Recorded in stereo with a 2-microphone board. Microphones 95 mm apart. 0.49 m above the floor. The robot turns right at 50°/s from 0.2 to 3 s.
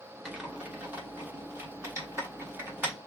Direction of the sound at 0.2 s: Centre (ahead or behind).